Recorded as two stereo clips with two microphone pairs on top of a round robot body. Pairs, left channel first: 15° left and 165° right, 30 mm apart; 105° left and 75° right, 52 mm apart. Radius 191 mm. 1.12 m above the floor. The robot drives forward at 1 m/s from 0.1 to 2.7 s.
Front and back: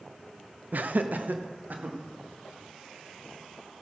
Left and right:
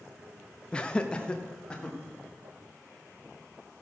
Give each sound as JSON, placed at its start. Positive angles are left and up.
{"t": 0.7, "sound": "laughter", "azimuth_deg": 175, "distance_m": 0.8}